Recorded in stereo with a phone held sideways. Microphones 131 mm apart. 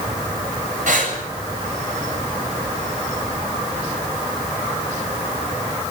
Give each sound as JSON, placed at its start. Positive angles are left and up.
{"t": 0.9, "sound": "breathing", "side_deg": -70, "distance_m": 7.5}